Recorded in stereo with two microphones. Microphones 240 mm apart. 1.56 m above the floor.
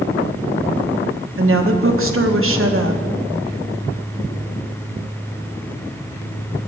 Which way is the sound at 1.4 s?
60° right (ahead or behind).